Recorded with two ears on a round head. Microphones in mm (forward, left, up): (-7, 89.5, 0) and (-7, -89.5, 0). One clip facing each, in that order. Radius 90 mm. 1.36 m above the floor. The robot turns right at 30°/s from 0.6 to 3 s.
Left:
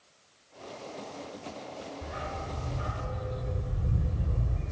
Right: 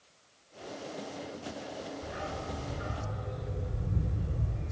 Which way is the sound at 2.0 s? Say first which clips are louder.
Even; 70° left (ahead or behind).